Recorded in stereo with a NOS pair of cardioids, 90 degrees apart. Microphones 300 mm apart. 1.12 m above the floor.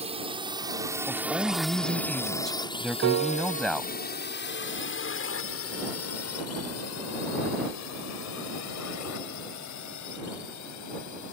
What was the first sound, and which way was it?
A drone, 20° right.